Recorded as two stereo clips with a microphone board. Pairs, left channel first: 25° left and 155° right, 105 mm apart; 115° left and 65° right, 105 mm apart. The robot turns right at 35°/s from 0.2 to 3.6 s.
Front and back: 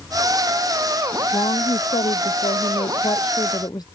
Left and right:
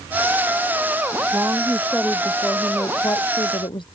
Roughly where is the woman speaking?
Ahead.